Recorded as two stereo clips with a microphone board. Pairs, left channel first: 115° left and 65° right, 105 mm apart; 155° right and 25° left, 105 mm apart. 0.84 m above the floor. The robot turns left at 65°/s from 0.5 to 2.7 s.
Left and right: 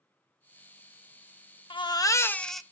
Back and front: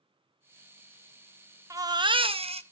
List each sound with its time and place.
1.7 s a baby crying: 80° left, 0.7 m; by 2.6 s 20° left, 0.7 m